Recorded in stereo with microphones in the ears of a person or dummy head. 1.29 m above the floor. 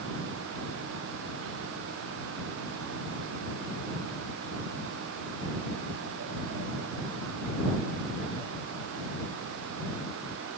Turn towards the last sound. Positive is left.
No sound to turn to.